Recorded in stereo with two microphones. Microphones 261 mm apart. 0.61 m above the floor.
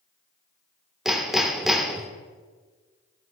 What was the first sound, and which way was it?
Hammering, centre (ahead or behind).